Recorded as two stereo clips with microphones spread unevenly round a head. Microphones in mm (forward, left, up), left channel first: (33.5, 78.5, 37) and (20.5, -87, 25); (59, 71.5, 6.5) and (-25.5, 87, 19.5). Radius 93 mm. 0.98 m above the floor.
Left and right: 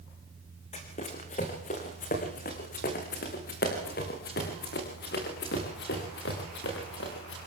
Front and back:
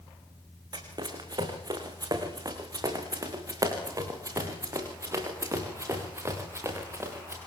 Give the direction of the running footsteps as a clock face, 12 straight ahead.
7 o'clock.